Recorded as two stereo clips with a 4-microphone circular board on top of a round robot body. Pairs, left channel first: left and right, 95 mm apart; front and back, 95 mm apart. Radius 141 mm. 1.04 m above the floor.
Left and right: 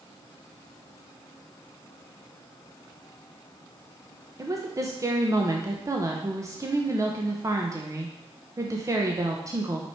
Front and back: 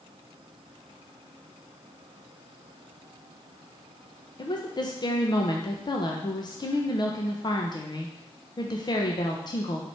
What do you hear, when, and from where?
4.4 s a woman speaking: 35° right, 1.1 m